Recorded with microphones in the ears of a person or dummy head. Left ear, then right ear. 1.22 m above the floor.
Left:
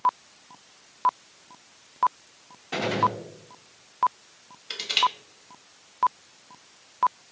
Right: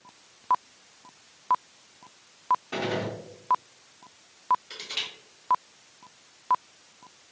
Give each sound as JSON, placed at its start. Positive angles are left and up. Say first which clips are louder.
{"t": 2.7, "sound": "a gunshot", "louder": "left 6 dB", "side_deg": 5, "distance_m": 0.8}
{"t": 4.7, "sound": "crushing", "louder": "left 9 dB", "side_deg": 45, "distance_m": 1.1}